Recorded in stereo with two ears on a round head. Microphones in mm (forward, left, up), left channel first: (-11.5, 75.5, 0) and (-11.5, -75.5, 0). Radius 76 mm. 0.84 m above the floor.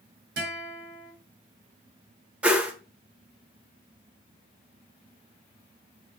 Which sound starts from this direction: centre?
A whoosh, at 2.4 s.